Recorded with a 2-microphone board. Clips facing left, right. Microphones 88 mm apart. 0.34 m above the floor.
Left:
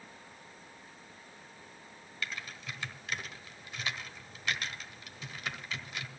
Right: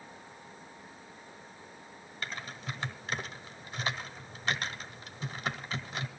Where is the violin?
No violin in this recording.